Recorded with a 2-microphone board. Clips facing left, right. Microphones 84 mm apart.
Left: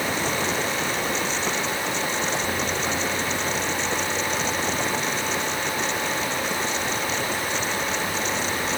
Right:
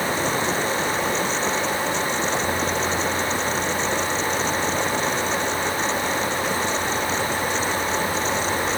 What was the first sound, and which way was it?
Only background noise.